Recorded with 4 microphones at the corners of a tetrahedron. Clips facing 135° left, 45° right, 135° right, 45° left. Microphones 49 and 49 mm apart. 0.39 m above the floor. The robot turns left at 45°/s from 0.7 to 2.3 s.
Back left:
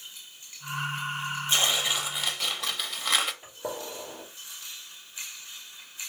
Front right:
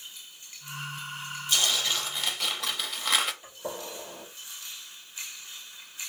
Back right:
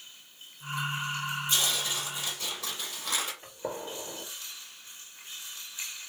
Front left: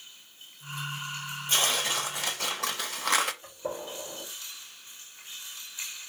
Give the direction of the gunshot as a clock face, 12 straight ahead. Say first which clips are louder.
Back left 2 dB, front left 1 dB; 5 o'clock.